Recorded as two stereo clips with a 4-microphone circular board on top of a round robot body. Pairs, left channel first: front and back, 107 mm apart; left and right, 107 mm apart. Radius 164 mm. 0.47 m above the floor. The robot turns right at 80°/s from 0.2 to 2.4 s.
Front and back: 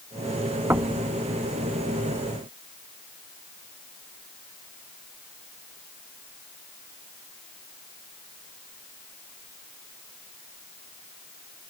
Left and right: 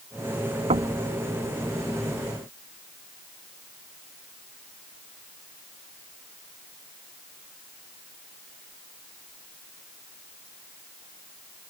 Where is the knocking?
110° right; by 1.0 s 85° right.